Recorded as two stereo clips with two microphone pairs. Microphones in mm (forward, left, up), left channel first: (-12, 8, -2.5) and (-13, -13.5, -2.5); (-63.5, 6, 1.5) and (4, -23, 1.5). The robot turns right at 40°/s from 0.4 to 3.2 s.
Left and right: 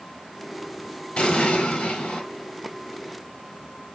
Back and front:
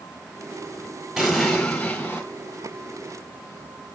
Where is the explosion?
55° left, 2 m; by 2.2 s 100° left, 2 m.